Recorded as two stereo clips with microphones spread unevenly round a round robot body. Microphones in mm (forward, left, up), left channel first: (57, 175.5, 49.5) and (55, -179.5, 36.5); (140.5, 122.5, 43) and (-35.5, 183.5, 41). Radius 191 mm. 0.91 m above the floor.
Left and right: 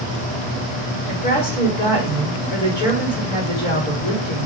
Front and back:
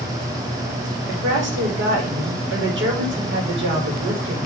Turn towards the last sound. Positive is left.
turn(degrees=155)